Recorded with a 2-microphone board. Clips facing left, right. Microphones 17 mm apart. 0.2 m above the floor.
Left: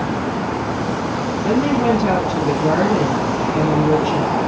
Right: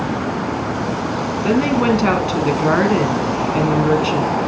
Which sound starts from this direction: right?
A woman speaking, at 1.4 s.